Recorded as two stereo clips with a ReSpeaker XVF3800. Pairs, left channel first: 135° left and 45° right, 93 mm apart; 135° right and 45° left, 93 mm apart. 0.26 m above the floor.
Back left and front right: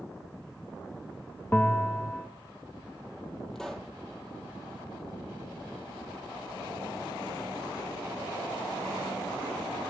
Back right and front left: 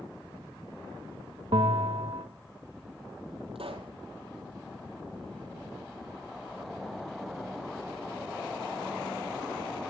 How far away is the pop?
About 1.7 m.